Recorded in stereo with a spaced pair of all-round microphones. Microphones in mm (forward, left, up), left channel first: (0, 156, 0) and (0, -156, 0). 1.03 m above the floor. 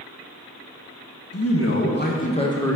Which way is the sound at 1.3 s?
50° left (ahead or behind).